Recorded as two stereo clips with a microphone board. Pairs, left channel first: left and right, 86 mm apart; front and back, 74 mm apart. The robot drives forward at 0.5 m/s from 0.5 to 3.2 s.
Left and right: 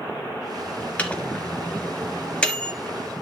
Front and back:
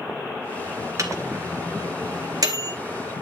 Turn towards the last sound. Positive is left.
turn(degrees=170)